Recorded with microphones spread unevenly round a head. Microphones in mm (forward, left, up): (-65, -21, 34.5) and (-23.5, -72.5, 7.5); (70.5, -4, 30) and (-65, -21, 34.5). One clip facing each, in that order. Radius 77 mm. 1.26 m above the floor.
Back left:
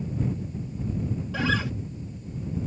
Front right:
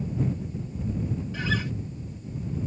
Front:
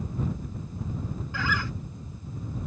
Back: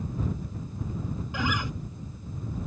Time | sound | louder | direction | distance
1.3 | a guitar | back left 4 dB, back 1 dB | 115° left | ?